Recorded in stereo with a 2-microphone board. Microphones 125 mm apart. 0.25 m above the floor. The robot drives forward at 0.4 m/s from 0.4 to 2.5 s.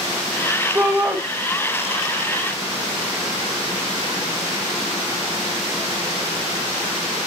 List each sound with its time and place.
0.8 s a shout: 15° right (ahead or behind), 1.0 m